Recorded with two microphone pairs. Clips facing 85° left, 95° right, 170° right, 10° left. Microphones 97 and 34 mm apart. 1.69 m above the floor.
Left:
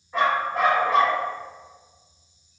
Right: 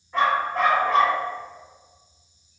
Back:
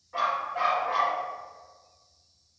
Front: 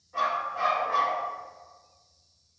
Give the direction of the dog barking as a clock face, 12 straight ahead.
6 o'clock.